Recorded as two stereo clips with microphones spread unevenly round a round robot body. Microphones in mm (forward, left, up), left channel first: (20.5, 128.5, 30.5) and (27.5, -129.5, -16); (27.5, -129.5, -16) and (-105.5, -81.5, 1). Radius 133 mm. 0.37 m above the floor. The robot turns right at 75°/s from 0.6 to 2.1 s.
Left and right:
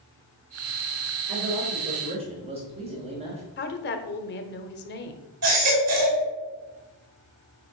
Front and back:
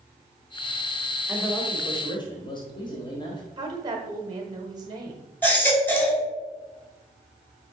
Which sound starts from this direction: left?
A woman speaking, at 3.6 s.